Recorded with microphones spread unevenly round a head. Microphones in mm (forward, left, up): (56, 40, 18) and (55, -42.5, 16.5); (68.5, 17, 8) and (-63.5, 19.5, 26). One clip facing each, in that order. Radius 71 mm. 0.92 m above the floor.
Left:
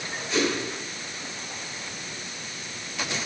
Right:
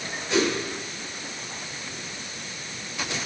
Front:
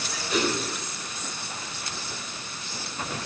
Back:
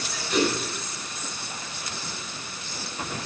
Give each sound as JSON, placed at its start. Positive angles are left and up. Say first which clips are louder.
{"t": 0.3, "sound": "a whoosh", "louder": "right 2 dB, back 3 dB", "azimuth_deg": -60, "distance_m": 7.5}